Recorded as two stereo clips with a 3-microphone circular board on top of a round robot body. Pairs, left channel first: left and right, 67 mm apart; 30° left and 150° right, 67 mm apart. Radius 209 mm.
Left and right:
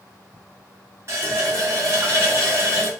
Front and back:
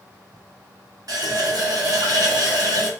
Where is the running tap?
135° right, 1.1 m.